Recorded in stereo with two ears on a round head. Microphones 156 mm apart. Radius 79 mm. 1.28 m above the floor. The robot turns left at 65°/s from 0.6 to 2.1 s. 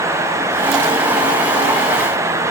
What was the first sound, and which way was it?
Only background noise.